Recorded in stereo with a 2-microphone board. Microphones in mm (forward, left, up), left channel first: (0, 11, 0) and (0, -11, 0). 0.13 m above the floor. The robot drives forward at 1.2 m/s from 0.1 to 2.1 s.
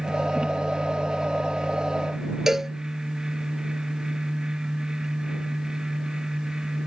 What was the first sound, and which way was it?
A cowbell, 25° right (ahead or behind).